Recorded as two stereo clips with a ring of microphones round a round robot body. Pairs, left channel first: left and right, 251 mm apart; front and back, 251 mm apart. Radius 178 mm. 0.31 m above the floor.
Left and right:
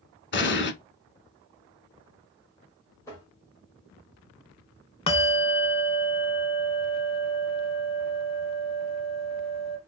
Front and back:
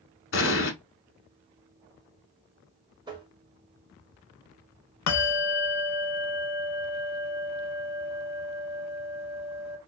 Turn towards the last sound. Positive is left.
turn(degrees=20)